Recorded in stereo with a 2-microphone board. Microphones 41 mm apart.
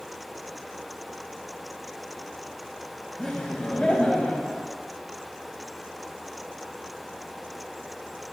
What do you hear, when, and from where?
3.2 s laughter: 5° left (ahead or behind), 1.3 m; by 4.7 s 40° left (ahead or behind), 1.4 m